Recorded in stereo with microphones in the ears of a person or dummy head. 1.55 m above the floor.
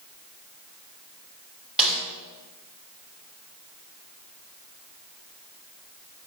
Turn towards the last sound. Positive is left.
turn(degrees=-5)  # may be behind; listen again after turning